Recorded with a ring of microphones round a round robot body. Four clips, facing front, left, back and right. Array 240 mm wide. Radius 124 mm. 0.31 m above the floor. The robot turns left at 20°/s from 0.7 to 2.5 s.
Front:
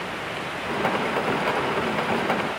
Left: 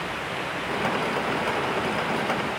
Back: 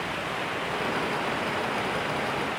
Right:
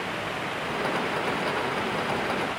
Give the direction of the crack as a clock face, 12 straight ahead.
No crack in this recording.